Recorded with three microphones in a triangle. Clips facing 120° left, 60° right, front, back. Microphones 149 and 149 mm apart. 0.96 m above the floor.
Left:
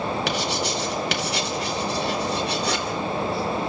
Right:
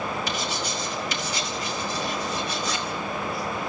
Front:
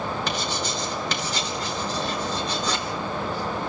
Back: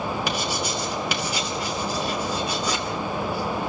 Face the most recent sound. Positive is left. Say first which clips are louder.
# left 4 dB, back 1 dB
turn(degrees=100)